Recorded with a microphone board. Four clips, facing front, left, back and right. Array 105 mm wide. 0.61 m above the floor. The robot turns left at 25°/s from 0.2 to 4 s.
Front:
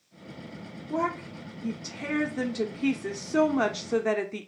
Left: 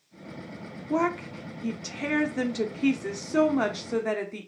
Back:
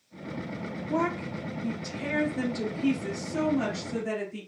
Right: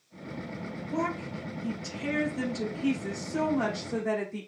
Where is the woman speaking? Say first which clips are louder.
Left 6 dB, back 1 dB; 105° left, 0.9 m; by 4.5 s 30° left, 0.9 m.